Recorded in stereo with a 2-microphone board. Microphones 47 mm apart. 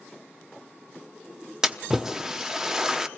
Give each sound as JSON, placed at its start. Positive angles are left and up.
{"t": 1.6, "sound": "a splash", "side_deg": -15, "distance_m": 1.0}